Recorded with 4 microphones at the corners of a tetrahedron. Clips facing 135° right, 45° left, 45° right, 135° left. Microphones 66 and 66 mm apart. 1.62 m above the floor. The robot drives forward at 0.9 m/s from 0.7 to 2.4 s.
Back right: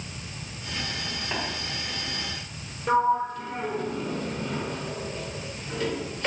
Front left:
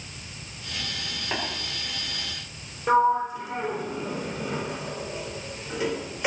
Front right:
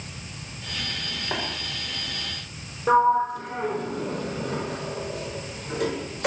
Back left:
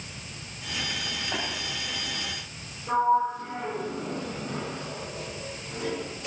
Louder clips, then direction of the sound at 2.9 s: Front left 2 dB, front right 4 dB; 35° right.